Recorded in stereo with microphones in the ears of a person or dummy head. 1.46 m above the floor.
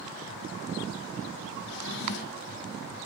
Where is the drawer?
75° left (ahead or behind), 2 m.